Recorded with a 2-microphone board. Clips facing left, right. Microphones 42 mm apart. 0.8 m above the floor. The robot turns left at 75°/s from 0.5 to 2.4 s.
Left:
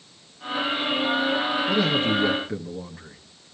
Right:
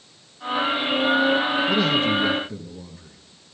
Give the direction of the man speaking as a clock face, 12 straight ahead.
6 o'clock.